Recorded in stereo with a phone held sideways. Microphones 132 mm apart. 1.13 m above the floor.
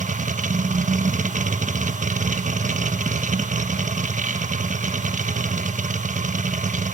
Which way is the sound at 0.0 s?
75° right (ahead or behind).